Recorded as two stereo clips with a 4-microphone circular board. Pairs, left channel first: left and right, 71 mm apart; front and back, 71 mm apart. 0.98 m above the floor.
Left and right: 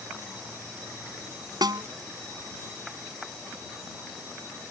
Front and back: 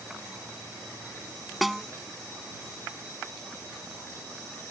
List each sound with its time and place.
1.6 s a snare drum: 90° right